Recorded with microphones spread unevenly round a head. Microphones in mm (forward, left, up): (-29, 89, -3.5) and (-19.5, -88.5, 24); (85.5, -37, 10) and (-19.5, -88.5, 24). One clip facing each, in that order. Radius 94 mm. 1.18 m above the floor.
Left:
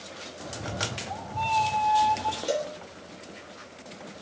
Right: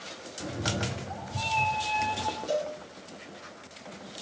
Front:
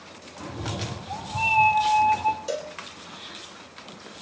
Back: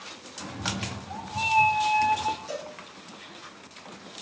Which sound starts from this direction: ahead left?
A cowbell, at 2.5 s.